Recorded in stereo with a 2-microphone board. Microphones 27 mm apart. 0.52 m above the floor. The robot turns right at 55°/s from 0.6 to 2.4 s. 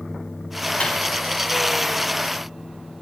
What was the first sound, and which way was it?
A microwave, 40° left (ahead or behind).